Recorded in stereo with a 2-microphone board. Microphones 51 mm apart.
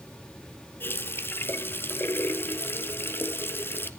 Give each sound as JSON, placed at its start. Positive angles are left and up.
{"t": 0.8, "sound": "a running tap", "side_deg": 45, "distance_m": 1.3}